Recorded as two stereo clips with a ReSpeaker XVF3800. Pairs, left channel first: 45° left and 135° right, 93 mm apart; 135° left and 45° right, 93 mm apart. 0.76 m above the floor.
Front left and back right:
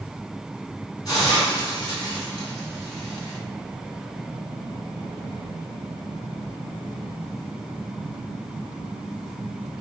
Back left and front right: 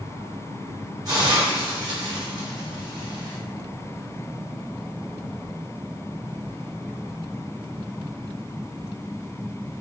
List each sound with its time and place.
1.1 s a hiss: 5° left, 1.5 m